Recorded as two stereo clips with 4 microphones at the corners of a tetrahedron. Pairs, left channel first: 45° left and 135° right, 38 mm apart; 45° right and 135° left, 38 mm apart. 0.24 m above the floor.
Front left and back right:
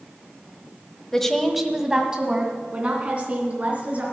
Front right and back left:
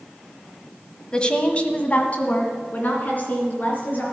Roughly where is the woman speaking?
Ahead.